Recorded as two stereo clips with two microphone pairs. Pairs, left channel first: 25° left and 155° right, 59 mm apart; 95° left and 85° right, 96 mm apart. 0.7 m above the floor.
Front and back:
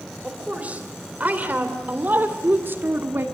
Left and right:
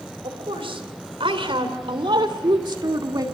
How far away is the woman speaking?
About 3.5 m.